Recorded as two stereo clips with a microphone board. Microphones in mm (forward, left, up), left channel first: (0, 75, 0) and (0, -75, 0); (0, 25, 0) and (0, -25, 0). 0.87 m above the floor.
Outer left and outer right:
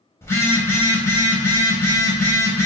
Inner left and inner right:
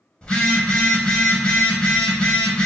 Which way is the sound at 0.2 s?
20° left (ahead or behind).